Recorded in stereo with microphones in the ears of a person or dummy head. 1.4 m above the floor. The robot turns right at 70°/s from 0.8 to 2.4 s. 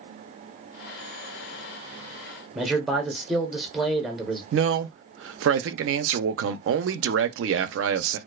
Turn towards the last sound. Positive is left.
turn(degrees=-70)  # may be behind; listen again after turning